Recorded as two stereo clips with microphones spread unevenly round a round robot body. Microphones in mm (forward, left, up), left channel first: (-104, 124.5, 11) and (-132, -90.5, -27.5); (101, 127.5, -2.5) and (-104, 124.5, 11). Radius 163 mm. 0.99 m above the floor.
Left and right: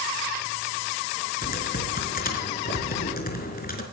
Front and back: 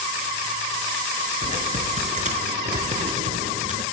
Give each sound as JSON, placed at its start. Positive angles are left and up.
{"t": 1.4, "sound": "typing on a keyboard", "azimuth_deg": 130, "distance_m": 4.5}